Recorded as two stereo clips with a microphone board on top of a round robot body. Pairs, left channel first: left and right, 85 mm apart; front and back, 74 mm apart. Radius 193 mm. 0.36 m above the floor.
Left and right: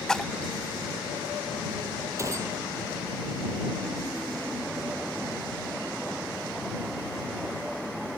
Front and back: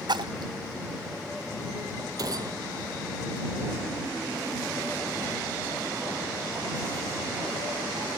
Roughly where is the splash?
Behind.